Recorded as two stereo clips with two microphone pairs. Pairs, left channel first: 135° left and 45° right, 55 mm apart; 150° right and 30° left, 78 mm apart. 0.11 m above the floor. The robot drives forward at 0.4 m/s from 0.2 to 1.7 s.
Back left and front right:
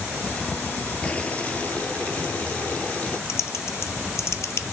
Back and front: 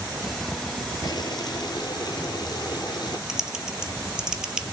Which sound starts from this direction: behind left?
Typing on a keyboard, at 3.3 s.